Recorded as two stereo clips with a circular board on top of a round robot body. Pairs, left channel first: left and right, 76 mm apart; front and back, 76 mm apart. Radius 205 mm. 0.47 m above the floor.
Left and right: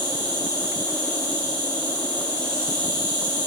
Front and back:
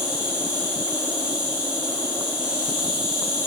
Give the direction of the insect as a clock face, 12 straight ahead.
9 o'clock.